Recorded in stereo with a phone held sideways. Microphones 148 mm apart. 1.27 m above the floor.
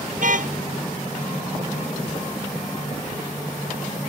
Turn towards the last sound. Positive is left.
turn(degrees=-65)  # may be behind; listen again after turning